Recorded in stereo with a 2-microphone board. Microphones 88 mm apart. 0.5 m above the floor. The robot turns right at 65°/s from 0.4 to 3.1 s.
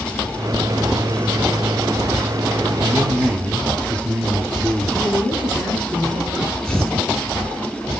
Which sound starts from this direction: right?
A man speaking, at 2.8 s.